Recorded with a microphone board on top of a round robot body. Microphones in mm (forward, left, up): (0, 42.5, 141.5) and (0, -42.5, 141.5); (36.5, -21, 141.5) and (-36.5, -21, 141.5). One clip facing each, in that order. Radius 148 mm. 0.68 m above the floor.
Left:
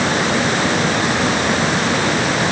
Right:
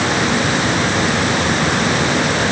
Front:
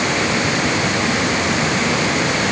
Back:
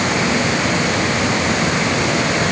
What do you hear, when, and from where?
Only background noise.